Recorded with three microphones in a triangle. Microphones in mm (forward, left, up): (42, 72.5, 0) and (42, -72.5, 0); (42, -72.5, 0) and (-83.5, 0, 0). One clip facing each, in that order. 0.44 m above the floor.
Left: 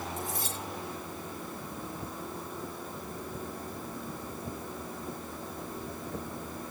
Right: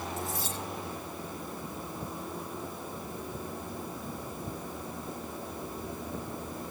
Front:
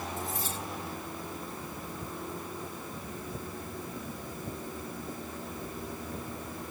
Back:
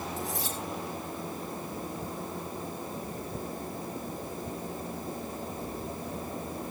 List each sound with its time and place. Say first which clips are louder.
0.2 s cutlery clinking: right 1 dB, back 2 dB; 130° left, 6.5 m